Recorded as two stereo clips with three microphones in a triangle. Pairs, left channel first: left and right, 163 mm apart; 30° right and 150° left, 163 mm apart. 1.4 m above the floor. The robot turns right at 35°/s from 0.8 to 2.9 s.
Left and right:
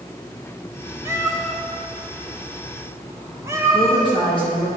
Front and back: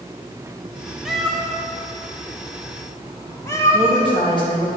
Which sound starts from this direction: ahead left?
A woman speaking, at 3.7 s.